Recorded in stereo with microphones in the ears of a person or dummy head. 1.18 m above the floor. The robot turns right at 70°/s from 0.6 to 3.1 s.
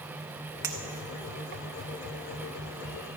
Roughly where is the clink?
Centre.